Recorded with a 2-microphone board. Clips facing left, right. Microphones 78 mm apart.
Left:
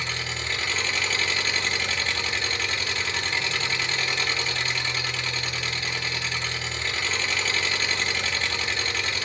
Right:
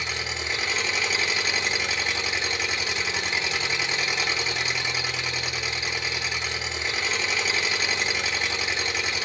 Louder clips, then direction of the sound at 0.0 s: Even; 10° right (ahead or behind).